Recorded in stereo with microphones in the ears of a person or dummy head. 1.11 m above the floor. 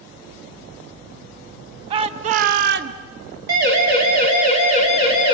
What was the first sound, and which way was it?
A shout, 30° right (ahead or behind).